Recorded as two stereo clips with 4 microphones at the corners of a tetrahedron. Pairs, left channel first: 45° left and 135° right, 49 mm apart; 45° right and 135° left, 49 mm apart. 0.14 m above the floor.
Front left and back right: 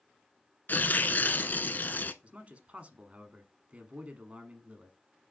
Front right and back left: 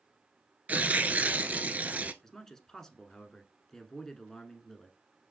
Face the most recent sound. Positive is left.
turn(degrees=-115)